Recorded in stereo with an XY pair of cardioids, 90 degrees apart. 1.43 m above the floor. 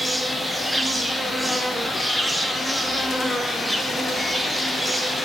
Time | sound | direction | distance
0.0 | an insect | 10° right | 0.9 m